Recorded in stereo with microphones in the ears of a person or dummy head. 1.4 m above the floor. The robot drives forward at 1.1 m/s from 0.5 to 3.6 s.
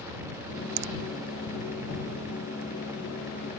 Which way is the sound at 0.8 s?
55° right (ahead or behind).